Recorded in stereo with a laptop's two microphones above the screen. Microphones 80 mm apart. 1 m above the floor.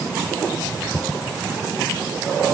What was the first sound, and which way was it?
Only background noise.